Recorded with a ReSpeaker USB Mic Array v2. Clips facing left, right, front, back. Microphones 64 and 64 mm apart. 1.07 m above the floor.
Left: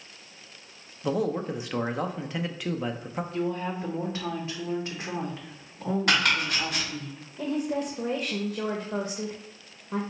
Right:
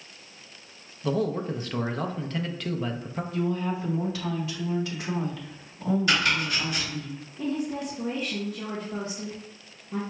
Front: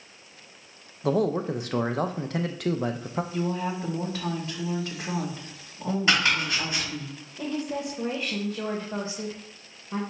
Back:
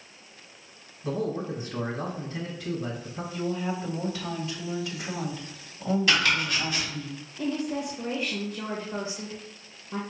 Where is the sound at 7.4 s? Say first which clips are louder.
Left 1 dB, back 1 dB; 65° left, 0.9 m.